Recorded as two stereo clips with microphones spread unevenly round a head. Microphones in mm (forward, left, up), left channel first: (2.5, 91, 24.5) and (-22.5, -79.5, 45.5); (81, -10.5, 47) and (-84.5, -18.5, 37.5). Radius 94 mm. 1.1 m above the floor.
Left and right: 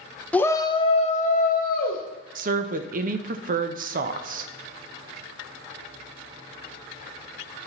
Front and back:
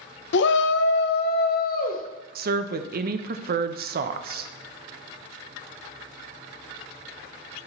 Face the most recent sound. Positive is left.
turn(degrees=-145)